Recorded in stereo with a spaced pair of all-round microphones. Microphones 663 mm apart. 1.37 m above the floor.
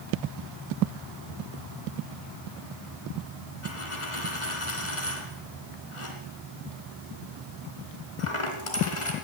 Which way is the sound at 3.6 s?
45° left (ahead or behind).